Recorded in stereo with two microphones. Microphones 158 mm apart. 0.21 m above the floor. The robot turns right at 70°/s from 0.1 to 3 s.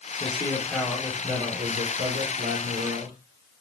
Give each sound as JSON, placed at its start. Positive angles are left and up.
{"t": 0.2, "sound": "a man speaking", "azimuth_deg": 135, "distance_m": 5.5}